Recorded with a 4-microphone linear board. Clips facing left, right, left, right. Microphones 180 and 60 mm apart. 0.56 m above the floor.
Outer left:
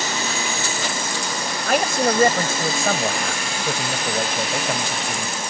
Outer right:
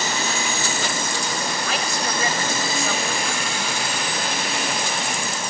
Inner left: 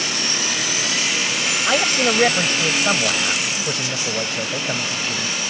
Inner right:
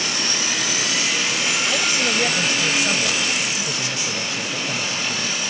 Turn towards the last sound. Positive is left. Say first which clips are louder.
# outer left 7 dB, inner left 7 dB
turn(degrees=55)  # may be behind; listen again after turning